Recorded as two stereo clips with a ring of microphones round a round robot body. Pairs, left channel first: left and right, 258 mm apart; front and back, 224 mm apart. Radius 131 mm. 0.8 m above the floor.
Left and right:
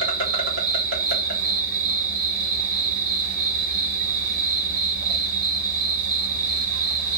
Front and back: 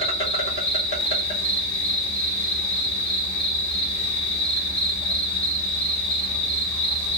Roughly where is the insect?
Ahead right.